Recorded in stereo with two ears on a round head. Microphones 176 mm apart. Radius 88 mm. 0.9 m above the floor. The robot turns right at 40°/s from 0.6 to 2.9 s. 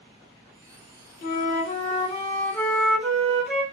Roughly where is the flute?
Behind left.